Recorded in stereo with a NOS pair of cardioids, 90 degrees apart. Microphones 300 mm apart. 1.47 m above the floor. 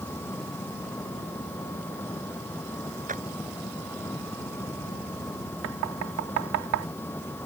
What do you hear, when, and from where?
0.0 s an engine running: 5° left
3.1 s a clap: 25° right
5.6 s knocking: 65° right